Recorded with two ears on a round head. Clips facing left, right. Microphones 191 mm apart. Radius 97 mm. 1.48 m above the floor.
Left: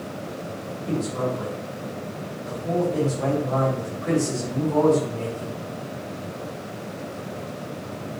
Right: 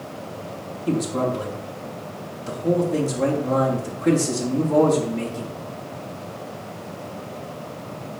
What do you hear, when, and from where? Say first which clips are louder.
0.9 s a man speaking: right 3 dB; 75° right (ahead or behind), 3.5 m